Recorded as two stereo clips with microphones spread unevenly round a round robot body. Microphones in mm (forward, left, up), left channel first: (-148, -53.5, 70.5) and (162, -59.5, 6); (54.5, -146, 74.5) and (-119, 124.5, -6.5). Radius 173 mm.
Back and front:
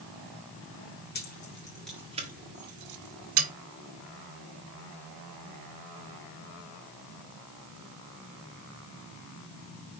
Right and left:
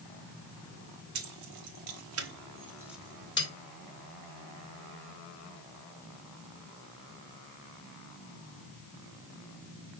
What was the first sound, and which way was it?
Keys jangling, 115° left.